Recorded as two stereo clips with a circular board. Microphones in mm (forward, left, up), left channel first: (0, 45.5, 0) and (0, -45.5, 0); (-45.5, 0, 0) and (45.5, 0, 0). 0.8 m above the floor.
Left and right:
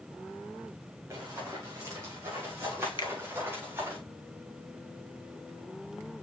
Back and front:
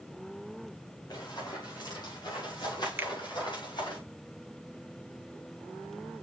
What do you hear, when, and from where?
1.1 s running footsteps: 140° right, 7 m; by 4.0 s 155° right, 9 m
3.0 s a finger snap: 65° left, 1.0 m